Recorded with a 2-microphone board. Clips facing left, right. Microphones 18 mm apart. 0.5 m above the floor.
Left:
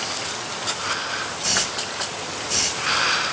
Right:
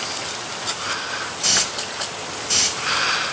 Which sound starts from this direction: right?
A hiss, at 1.4 s.